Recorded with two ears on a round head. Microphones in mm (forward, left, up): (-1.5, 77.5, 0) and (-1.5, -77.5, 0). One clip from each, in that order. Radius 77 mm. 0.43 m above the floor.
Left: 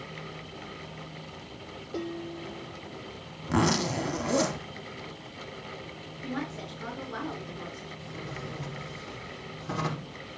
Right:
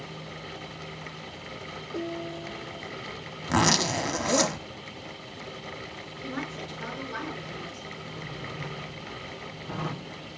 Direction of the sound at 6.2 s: 10° right (ahead or behind).